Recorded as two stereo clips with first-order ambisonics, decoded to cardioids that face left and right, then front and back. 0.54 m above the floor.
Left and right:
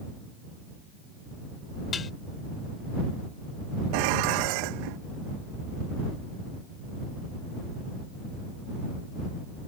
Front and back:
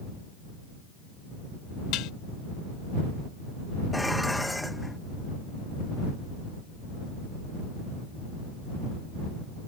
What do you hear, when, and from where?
1.9 s dishes clattering: 25° left
3.9 s dishes clattering: 85° right